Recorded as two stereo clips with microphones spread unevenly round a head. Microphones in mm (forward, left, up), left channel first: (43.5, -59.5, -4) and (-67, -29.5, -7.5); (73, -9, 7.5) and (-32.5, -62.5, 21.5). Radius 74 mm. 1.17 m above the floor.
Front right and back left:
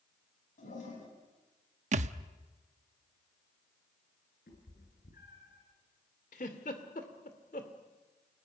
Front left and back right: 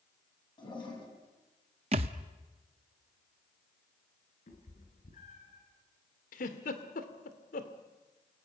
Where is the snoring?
I don't hear snoring.